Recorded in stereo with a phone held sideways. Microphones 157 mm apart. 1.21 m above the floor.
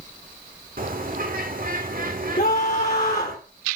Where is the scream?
65° left (ahead or behind), 4 m.